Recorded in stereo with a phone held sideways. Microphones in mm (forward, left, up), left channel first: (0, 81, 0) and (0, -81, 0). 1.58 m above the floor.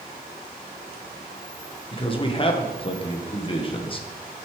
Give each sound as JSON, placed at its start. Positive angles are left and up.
{"t": 1.9, "sound": "a man speaking", "side_deg": 35, "distance_m": 1.4}